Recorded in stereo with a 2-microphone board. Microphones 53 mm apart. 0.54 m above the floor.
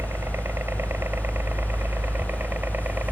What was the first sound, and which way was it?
A helicopter, 50° right (ahead or behind).